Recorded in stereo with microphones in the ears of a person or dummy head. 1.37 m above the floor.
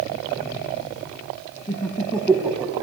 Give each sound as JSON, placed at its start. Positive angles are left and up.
{"t": 1.7, "sound": "laughter", "side_deg": 15, "distance_m": 1.7}